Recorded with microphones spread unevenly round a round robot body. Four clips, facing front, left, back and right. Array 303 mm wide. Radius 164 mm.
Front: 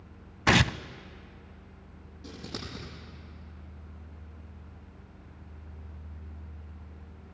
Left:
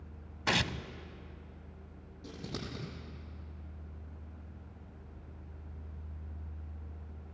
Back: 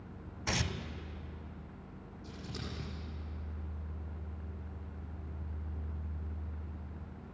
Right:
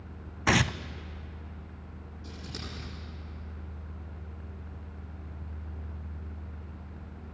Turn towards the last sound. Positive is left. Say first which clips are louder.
# left 2 dB, front 4 dB
turn(degrees=30)